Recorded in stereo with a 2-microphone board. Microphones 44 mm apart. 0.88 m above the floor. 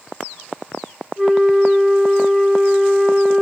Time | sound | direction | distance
1.2 | a flute | 20° right (ahead or behind) | 0.8 m